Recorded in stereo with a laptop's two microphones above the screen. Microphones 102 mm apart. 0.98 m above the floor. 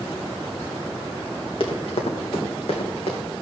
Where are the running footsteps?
60° left (ahead or behind), 3 m; by 3.2 s 70° left (ahead or behind), 3.5 m.